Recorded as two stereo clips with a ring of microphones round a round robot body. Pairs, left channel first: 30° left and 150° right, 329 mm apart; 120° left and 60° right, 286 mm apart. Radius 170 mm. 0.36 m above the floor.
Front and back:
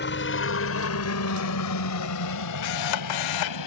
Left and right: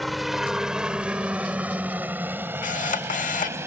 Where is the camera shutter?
55° left.